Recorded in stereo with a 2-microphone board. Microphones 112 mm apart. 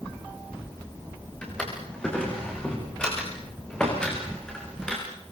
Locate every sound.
1.4 s a drawer: 10° left (ahead or behind), 9 m